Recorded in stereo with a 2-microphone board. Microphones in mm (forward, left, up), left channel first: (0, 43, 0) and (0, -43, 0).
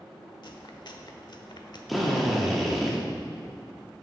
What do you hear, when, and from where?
0.4 s chewing: 60° left (ahead or behind), 0.9 m
1.9 s a drill: centre (ahead or behind), 1.5 m